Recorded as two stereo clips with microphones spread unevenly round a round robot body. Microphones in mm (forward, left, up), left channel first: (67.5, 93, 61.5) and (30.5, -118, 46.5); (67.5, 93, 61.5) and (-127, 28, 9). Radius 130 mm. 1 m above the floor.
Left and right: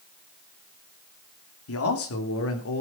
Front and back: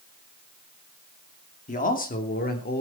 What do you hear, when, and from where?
1.7 s a man speaking: 75° left, 3 m; by 2.8 s 60° left, 3.5 m